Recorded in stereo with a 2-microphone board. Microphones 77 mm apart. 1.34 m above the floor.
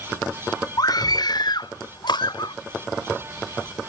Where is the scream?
60° left (ahead or behind); by 2.5 s 85° left.